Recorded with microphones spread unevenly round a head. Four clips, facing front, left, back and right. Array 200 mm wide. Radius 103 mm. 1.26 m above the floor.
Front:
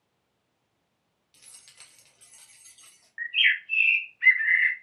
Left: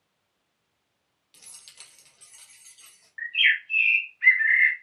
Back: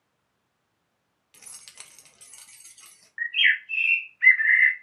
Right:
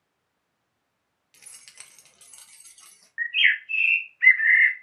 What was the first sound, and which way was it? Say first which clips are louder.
Keys jangling: right 2 dB, back 6 dB; 155° left.